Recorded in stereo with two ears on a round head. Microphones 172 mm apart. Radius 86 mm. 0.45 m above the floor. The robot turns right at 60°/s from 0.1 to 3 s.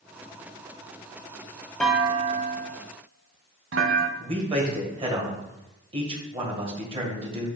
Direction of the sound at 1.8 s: 5° left (ahead or behind).